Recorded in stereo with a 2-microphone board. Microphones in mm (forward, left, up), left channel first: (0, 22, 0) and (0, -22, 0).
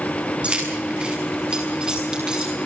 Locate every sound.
0.4 s keys jangling: 25° right (ahead or behind), 6.5 m; by 2.5 s 15° right (ahead or behind), 7.5 m